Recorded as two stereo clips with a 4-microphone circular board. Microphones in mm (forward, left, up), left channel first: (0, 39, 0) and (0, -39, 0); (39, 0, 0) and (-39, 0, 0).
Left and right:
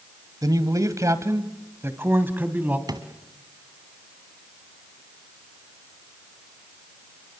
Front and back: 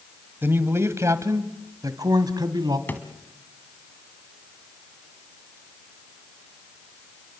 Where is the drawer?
65° right, 1.9 m.